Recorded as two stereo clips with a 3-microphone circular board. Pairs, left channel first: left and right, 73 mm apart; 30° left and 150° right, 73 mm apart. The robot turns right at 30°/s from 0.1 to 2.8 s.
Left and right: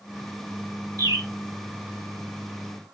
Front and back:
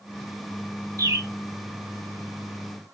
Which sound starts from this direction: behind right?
A bird, at 1.0 s.